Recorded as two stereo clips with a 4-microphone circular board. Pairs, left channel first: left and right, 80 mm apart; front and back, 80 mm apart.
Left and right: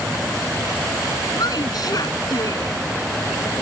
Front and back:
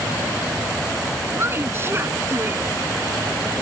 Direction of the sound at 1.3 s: 125° left.